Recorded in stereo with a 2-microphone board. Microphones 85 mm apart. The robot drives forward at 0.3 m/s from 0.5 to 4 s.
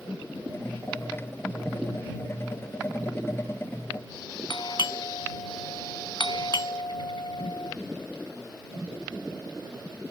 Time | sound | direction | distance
4.5 | a doorbell | 60° left (ahead or behind) | ?